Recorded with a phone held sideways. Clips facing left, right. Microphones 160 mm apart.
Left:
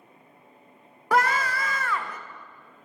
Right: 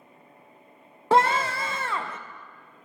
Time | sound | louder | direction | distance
1.1 | a scream | right 2 dB | 25° right (ahead or behind) | 0.5 m